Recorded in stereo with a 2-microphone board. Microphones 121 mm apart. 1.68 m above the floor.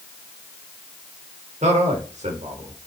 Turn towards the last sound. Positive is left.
turn(degrees=-70)  # may be behind; listen again after turning